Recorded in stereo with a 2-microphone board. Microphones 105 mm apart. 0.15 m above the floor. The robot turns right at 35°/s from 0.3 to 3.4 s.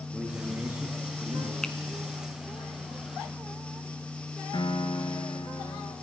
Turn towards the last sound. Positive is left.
turn(degrees=50)  # may be behind; listen again after turning